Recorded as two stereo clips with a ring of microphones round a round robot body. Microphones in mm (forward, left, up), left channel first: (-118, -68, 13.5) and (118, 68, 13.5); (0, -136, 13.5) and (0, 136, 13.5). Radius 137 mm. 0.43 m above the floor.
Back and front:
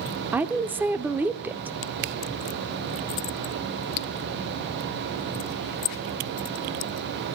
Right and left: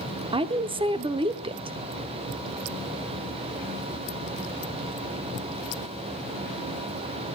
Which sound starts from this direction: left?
A woman speaking, at 0.3 s.